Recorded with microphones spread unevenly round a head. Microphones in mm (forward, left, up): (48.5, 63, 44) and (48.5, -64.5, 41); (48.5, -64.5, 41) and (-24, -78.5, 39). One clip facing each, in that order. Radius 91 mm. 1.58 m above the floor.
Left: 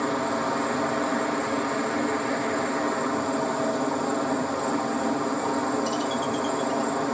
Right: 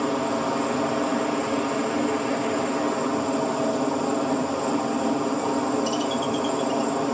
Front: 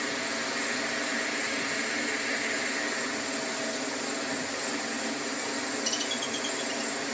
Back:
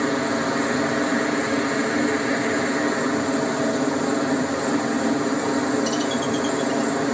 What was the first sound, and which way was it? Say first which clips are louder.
A helicopter: right 2 dB, back 11 dB; 165° right.